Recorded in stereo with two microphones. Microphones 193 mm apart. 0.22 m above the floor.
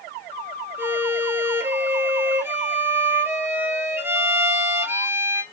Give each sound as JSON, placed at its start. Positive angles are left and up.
{"t": 0.8, "sound": "a violin", "side_deg": -10, "distance_m": 0.7}